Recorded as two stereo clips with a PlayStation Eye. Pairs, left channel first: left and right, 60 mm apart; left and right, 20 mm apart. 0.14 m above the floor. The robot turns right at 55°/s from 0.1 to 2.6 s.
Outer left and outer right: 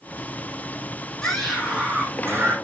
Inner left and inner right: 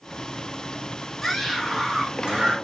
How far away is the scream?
About 4.5 m.